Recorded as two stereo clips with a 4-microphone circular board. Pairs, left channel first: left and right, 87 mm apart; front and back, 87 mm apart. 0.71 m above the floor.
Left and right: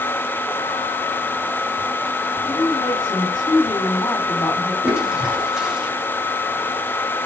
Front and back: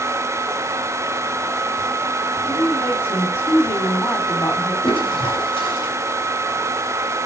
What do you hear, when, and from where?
2.5 s a woman speaking: 50° left, 2.5 m
4.8 s a toilet flushing: 10° right, 3 m